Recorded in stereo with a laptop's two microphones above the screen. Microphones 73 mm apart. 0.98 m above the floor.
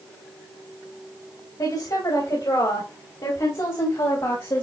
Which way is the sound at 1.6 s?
70° left (ahead or behind).